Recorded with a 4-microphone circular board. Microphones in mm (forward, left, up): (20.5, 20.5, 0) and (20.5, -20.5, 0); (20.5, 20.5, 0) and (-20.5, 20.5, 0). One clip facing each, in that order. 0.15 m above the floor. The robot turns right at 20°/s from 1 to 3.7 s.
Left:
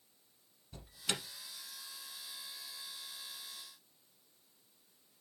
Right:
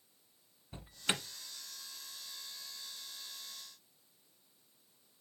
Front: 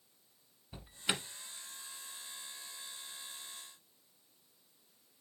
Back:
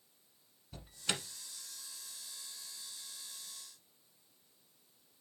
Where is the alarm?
55° right, 1.0 m; by 1.2 s 50° right, 1.0 m.